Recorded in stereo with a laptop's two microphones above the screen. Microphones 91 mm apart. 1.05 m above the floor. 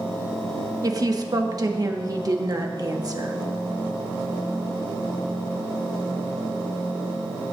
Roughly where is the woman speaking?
Right.